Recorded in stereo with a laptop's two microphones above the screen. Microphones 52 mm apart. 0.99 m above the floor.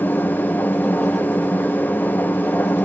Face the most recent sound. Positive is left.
turn(degrees=35)  # may be behind; listen again after turning